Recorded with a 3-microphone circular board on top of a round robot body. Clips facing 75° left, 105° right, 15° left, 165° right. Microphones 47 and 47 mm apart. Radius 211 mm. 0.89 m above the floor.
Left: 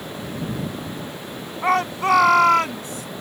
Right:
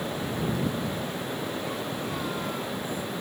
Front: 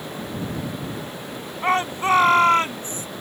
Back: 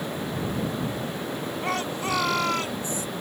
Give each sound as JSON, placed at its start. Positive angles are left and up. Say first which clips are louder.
{"t": 1.6, "sound": "a shout", "louder": "left 12 dB, front 9 dB", "azimuth_deg": 70}